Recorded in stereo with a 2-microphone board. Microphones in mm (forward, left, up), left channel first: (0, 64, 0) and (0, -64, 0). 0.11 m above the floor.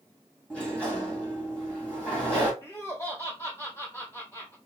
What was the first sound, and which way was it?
A sliding door, 10° left (ahead or behind).